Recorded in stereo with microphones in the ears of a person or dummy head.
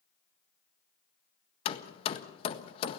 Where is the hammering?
35° left (ahead or behind), 1.5 m.